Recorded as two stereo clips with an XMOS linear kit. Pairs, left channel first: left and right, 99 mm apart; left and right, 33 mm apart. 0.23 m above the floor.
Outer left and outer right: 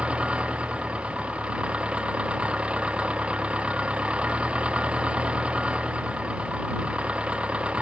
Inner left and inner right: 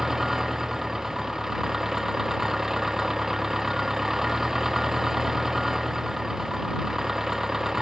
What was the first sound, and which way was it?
An engine running, 10° right (ahead or behind).